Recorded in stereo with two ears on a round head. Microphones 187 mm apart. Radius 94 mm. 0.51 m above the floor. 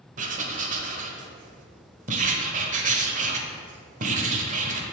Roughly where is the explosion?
I don't hear an explosion.